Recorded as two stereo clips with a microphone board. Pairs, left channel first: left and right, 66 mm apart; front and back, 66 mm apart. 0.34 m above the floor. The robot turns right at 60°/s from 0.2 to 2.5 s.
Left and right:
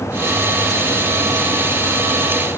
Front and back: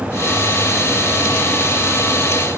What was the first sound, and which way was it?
Only background noise.